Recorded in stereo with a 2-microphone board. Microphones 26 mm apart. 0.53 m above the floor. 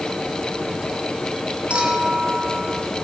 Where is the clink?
50° right (ahead or behind), 3.5 m.